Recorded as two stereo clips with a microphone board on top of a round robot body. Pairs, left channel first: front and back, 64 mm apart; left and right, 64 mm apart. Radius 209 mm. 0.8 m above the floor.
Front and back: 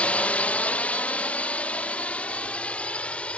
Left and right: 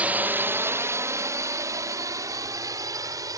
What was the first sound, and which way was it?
A drone, 50° right.